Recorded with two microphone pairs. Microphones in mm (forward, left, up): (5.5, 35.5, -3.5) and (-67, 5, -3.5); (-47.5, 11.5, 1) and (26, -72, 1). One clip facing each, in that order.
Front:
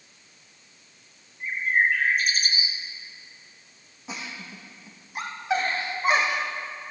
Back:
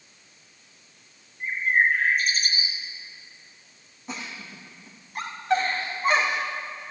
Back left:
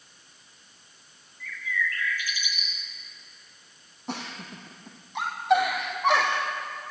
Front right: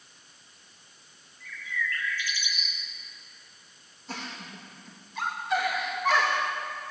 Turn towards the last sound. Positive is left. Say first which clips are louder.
# even, back left 4 dB
turn(degrees=110)